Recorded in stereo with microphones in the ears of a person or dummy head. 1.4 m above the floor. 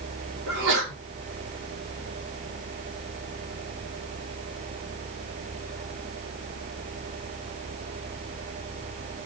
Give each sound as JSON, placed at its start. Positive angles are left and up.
{"t": 0.5, "sound": "a sneeze", "side_deg": -75, "distance_m": 2.0}